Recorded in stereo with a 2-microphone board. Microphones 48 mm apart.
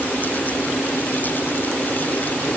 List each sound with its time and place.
Only background noise.